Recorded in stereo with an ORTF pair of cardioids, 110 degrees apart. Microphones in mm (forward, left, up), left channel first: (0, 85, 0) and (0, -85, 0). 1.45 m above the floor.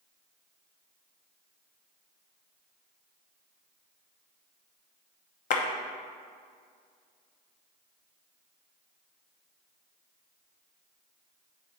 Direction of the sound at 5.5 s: 55° left.